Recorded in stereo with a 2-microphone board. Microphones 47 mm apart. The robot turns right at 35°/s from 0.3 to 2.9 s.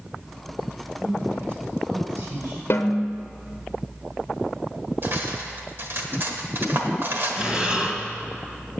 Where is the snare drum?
60° left (ahead or behind), 0.9 m; by 3.0 s 55° left (ahead or behind), 0.9 m.